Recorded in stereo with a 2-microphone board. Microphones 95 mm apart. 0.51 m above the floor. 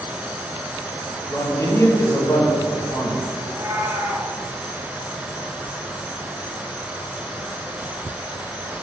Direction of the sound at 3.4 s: 30° right (ahead or behind).